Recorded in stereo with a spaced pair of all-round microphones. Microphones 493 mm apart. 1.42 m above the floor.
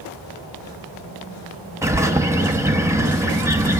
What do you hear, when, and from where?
1.8 s a bird: 5° right (ahead or behind), 0.9 m